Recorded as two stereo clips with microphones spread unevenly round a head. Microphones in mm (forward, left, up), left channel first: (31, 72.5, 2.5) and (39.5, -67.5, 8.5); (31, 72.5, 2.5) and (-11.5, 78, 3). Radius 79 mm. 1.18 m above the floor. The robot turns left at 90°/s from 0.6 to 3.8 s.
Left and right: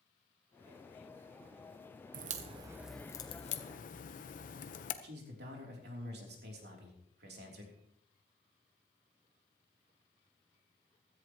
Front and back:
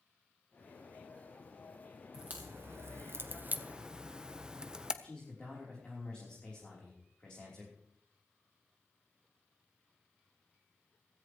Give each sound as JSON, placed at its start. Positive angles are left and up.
{"t": 2.1, "sound": "a crack", "azimuth_deg": -110, "distance_m": 0.9}
{"t": 5.0, "sound": "a man speaking", "azimuth_deg": -90, "distance_m": 3.5}